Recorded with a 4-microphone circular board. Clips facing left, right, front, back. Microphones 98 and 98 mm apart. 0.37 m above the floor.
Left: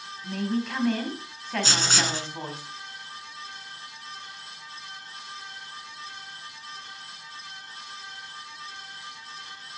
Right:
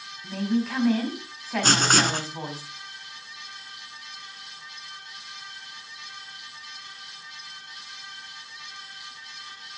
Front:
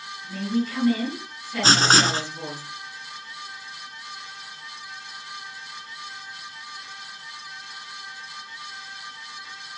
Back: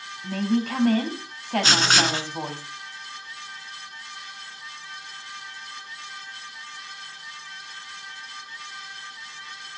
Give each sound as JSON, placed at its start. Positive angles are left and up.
{"t": 0.2, "sound": "a woman speaking", "azimuth_deg": -175, "distance_m": 3.0}
{"t": 1.6, "sound": "writing", "azimuth_deg": -55, "distance_m": 1.0}